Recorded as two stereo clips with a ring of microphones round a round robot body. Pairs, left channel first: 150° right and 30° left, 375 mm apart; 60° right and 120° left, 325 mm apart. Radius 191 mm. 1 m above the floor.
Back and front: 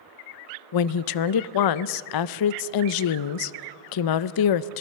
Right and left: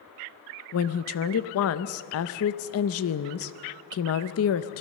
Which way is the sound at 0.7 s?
115° right.